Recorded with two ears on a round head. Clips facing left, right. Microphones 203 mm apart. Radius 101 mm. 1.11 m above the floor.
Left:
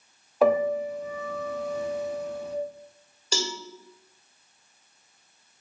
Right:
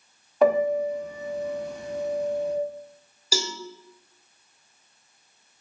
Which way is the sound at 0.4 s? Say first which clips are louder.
Right 1 dB; centre (ahead or behind).